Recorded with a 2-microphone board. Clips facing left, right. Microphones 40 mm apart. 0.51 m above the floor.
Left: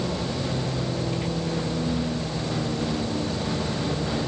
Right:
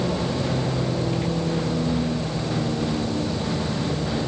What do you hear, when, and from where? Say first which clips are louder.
0.0 s a vehicle: right 3 dB; 15° right (ahead or behind); by 4.3 s centre (ahead or behind)